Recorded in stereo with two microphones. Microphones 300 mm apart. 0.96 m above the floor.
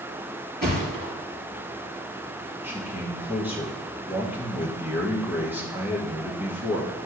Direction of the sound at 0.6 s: 30° right (ahead or behind).